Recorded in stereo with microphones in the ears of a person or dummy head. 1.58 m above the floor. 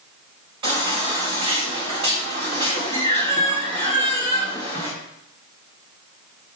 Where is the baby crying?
30° right (ahead or behind), 3 m.